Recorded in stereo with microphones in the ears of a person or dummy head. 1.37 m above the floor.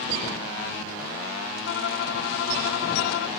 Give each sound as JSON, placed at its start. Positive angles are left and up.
{"t": 1.6, "sound": "a violin", "side_deg": 70}